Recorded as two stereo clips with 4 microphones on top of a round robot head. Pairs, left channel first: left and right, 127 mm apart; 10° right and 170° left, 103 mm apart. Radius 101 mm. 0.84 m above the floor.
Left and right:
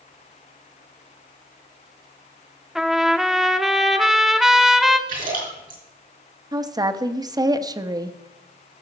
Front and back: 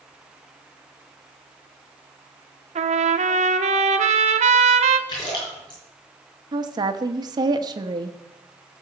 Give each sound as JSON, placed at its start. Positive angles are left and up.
{"t": 2.8, "sound": "a trumpet", "azimuth_deg": -175, "distance_m": 0.9}
{"t": 5.1, "sound": "a splash", "azimuth_deg": -70, "distance_m": 5.0}
{"t": 6.5, "sound": "a woman speaking", "azimuth_deg": -145, "distance_m": 1.0}